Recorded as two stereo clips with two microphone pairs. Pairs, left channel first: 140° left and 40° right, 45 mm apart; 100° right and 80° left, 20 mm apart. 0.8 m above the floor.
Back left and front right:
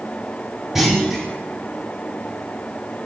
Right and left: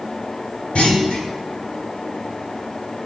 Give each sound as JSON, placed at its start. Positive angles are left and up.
{"t": 0.8, "sound": "a clunk", "azimuth_deg": -125, "distance_m": 1.7}